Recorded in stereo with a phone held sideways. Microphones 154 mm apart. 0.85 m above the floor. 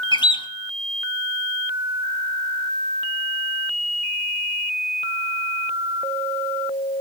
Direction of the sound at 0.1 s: 30° left (ahead or behind).